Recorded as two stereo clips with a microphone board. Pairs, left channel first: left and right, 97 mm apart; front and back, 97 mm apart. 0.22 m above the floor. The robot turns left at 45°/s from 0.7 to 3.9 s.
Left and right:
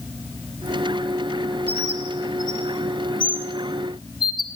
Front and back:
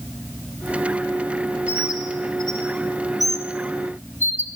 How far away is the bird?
About 2 m.